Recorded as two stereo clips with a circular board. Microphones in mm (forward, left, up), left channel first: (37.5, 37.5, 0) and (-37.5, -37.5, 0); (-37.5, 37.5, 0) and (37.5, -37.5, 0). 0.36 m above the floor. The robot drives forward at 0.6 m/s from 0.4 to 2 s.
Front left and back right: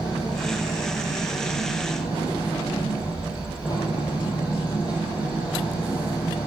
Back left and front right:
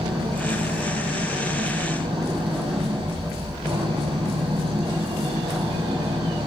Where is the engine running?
5° right, 7.5 m.